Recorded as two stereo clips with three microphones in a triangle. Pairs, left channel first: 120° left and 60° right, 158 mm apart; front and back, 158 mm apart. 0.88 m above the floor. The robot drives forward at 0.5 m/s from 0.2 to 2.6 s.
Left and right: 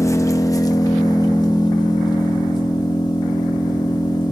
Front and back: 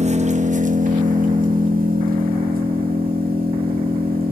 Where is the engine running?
175° right, 0.7 m; by 4.3 s straight behind, 1.8 m.